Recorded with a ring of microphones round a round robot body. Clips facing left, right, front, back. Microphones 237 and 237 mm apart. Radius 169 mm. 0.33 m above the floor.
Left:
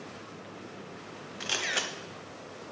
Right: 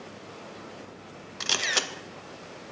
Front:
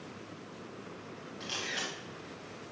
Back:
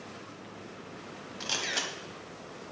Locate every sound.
1.4 s a camera shutter: 135° right, 0.6 m